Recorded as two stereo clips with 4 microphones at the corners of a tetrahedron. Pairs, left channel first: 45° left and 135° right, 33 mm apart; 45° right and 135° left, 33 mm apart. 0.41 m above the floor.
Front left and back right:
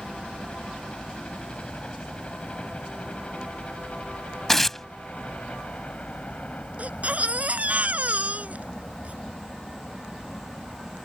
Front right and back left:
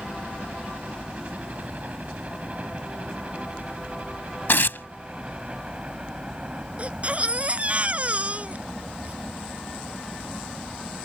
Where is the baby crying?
175° right.